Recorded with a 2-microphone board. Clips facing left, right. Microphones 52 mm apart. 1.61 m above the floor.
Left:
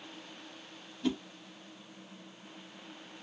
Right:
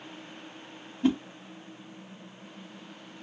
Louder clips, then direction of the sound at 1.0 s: Right 7 dB; 30° right (ahead or behind).